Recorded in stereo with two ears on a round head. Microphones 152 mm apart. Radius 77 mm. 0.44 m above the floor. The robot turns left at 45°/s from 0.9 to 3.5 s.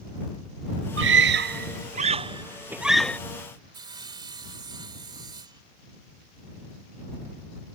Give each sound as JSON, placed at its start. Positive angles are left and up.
{"t": 1.0, "sound": "a scream", "side_deg": -85}
{"t": 3.7, "sound": "sawing", "side_deg": -30}